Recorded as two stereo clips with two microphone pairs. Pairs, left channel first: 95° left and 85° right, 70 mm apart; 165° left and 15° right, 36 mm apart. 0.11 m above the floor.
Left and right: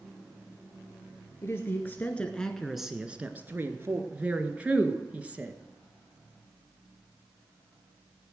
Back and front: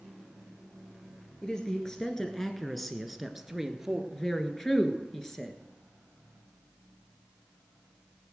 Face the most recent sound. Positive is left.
turn(degrees=-130)